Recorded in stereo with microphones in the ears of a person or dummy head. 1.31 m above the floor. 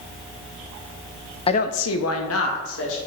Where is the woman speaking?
25° left (ahead or behind), 0.6 m; by 3.0 s 70° left (ahead or behind), 2.5 m.